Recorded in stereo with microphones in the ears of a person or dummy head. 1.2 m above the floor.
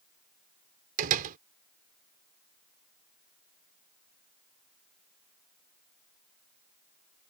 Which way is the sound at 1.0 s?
45° right (ahead or behind).